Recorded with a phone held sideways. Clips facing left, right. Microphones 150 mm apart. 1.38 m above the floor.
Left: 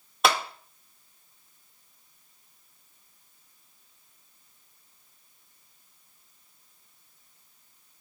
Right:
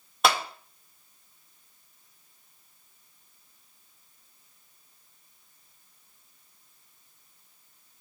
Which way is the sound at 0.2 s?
Centre (ahead or behind).